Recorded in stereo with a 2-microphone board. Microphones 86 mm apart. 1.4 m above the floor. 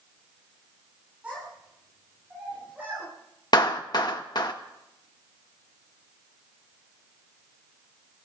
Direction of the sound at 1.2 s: 15° right (ahead or behind).